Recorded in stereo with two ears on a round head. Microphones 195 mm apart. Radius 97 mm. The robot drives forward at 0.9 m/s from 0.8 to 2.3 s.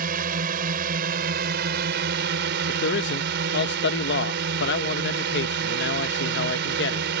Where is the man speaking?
55° left (ahead or behind).